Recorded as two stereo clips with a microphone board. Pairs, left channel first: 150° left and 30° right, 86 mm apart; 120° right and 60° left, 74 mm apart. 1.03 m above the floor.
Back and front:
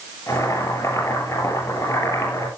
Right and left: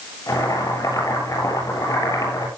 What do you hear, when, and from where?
0.3 s boiling: 160° right, 7.5 m